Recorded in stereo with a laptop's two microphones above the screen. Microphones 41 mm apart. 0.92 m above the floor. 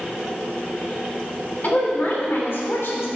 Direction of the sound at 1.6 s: 45° left (ahead or behind).